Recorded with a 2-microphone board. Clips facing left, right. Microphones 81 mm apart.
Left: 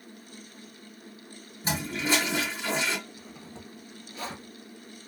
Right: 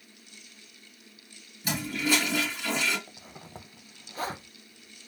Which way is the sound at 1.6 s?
30° left (ahead or behind).